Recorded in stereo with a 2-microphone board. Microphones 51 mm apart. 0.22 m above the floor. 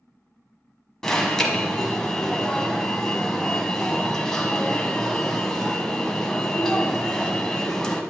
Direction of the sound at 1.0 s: 10° left (ahead or behind).